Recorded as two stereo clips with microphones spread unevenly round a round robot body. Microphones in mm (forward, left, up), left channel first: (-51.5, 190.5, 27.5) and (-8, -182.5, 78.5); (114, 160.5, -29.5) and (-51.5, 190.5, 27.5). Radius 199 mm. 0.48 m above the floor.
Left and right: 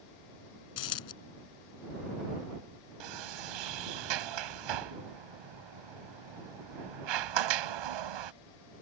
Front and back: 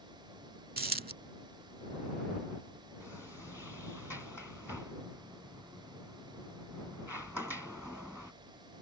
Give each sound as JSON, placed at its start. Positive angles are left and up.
{"t": 0.8, "sound": "a dropped coin", "azimuth_deg": 140}
{"t": 3.0, "sound": "a sliding door", "azimuth_deg": -100}